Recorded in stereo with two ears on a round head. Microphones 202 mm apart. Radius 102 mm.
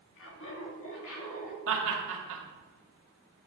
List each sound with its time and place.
0.2 s laughter: 55° left (ahead or behind), 1.6 m; by 1.6 s 70° left (ahead or behind), 2.5 m
1.7 s laughter: 65° right (ahead or behind), 1.6 m